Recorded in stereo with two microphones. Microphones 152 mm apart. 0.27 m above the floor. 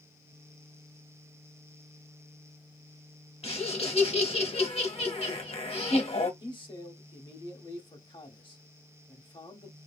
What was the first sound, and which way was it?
Laughter, 40° left (ahead or behind).